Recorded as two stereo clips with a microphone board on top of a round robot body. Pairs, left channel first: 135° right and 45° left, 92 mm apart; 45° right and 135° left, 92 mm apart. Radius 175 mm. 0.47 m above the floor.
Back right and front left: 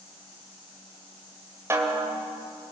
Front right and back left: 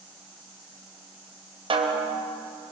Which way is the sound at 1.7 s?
110° left.